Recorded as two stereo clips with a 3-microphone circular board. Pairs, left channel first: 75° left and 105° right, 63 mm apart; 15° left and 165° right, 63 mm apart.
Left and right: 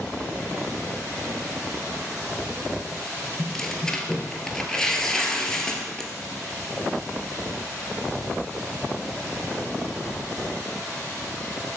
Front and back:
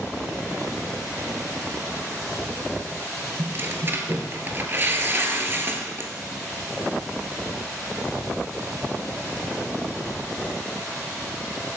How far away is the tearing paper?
About 0.7 m.